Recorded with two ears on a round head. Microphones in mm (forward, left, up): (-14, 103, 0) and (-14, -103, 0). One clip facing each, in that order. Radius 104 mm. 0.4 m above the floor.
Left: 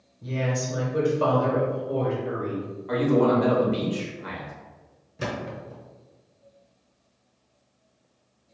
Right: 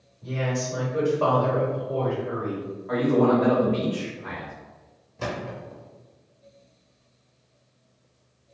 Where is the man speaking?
45° left (ahead or behind), 1.2 m.